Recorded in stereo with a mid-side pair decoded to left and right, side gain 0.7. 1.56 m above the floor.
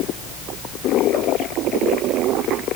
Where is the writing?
I don't hear writing.